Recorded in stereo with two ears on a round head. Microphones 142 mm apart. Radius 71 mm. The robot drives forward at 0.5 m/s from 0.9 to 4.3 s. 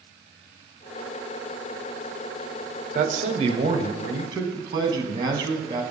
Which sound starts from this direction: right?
A man speaking, at 3.0 s.